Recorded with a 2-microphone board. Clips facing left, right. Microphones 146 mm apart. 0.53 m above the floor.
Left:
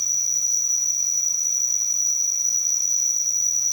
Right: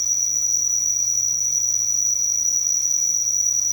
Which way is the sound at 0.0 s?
15° left (ahead or behind).